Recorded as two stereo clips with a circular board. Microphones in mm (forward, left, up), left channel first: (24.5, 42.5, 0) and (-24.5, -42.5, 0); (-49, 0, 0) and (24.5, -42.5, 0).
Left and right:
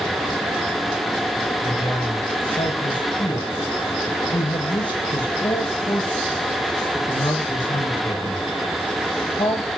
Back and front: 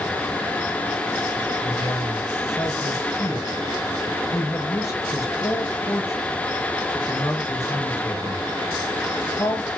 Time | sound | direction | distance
1.6 | a man speaking | 95° left | 8.5 m